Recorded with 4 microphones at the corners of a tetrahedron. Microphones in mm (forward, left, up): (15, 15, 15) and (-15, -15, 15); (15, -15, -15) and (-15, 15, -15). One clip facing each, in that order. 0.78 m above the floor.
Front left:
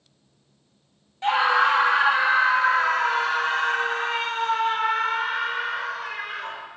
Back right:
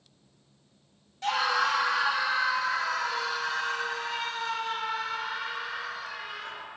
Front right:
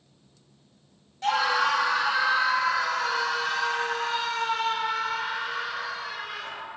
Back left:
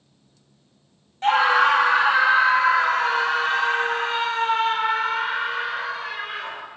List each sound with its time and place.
1.2 s a scream: 95° left, 1.3 m; by 6.7 s 80° left, 4 m